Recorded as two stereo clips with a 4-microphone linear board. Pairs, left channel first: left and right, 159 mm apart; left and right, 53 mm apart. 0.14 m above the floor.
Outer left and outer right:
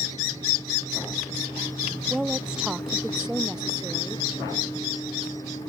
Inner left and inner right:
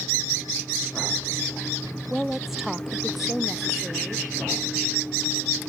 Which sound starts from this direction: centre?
A woman speaking, at 2.1 s.